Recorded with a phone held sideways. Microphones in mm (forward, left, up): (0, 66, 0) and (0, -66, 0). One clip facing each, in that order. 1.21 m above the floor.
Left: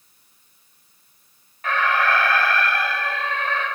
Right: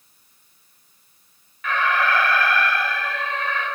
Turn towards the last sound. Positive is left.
turn(degrees=40)  # may be behind; listen again after turning